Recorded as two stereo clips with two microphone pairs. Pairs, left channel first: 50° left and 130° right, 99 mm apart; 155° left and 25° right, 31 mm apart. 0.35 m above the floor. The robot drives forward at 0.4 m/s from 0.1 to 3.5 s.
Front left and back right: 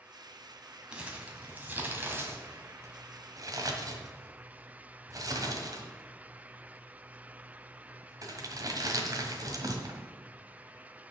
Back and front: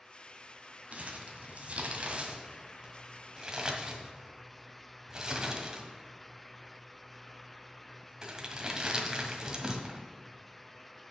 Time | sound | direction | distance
0.9 | crumpling | 50° right | 2.0 m